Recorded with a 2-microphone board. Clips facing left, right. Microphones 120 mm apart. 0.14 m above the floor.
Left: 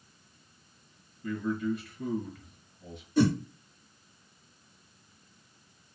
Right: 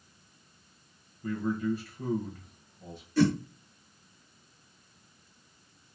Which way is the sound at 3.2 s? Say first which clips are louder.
Even; 20° left (ahead or behind).